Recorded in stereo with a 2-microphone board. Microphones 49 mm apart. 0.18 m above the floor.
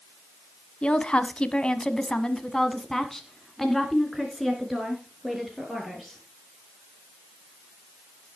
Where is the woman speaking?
20° left (ahead or behind), 1.1 m; by 6.2 s 5° right (ahead or behind), 3 m.